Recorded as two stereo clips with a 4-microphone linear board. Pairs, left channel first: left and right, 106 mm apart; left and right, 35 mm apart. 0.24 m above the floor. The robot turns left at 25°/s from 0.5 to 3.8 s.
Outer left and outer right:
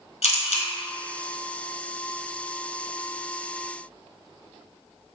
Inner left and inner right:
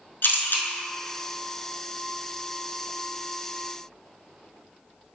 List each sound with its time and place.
0.2 s a camera shutter: 80° left, 0.6 m; by 0.7 s 75° left (ahead or behind), 0.6 m